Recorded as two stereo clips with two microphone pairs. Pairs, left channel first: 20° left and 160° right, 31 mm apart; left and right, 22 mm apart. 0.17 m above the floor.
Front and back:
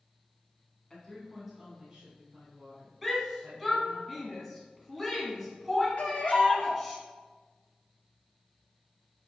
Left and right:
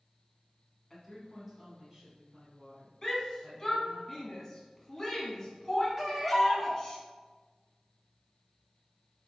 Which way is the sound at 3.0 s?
120° left.